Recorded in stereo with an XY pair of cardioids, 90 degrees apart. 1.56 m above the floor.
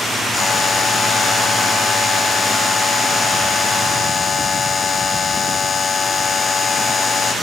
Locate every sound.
0.3 s a buzzer: 50° left